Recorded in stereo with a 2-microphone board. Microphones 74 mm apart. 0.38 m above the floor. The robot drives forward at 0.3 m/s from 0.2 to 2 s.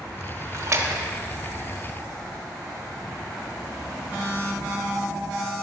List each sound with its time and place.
0.5 s a splash: 45° right (ahead or behind), 0.8 m; by 1.1 s 40° right (ahead or behind), 0.8 m